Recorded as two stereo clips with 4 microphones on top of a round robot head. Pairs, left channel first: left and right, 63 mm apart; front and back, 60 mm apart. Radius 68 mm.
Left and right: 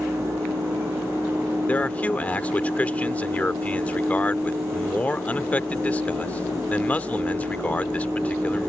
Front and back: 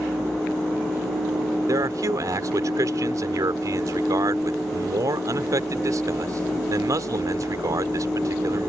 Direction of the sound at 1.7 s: 155° left.